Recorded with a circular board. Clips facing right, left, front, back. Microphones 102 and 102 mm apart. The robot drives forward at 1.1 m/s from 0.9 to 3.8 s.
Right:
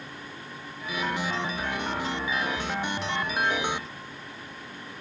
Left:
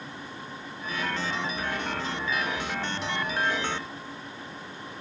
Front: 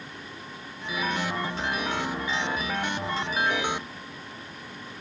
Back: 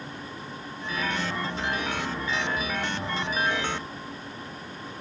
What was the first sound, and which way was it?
Only background noise.